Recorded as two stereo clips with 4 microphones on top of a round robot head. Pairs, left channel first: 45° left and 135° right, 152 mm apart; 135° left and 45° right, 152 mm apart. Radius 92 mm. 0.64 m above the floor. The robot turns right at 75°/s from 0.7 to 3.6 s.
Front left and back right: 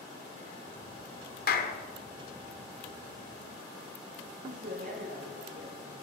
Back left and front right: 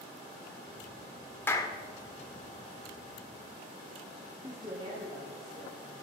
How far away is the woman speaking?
About 6.5 m.